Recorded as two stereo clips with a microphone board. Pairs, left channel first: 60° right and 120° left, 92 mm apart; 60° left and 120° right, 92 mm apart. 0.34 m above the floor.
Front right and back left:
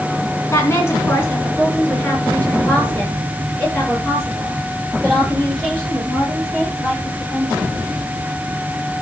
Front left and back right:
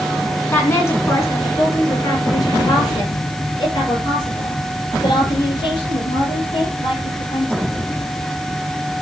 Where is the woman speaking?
5° right, 3.5 m; by 7.8 s 25° left, 11 m.